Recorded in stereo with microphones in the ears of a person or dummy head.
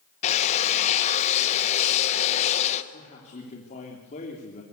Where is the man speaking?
40° left (ahead or behind), 3 m.